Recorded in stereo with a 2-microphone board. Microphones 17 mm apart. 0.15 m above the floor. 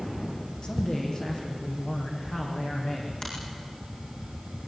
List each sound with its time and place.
0.6 s a man speaking: 50° left (ahead or behind), 6 m; by 3.1 s 60° left (ahead or behind), 7.5 m
3.2 s a finger snap: 40° left (ahead or behind), 9.5 m